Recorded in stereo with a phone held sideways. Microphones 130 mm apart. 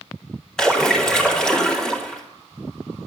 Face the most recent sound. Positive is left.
turn(degrees=5)  # may be behind; listen again after turning